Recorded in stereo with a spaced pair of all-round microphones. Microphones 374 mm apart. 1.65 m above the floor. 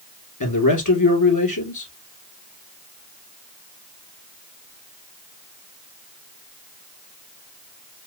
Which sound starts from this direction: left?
A man speaking, at 0.4 s.